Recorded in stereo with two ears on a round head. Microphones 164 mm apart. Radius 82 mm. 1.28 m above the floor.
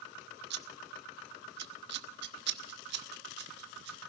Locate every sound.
0.5 s scissors: 65° right (ahead or behind), 1.2 m